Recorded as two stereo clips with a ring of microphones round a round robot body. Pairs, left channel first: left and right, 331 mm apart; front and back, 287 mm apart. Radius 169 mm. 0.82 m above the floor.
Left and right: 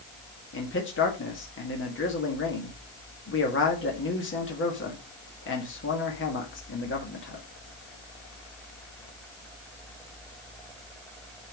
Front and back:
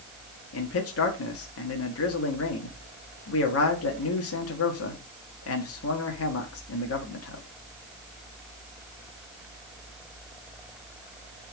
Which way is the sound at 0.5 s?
35° left.